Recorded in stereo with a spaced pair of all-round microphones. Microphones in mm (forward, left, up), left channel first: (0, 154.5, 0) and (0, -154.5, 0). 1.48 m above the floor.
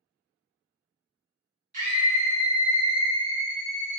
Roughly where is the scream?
Right.